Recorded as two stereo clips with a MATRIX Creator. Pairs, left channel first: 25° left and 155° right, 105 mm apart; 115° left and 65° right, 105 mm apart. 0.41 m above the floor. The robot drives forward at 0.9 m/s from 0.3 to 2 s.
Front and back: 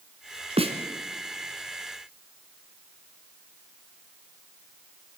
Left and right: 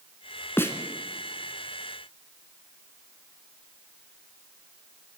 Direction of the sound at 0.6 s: Straight behind.